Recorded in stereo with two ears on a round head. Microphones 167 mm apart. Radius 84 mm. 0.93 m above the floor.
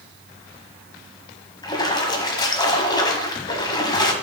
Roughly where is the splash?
Left.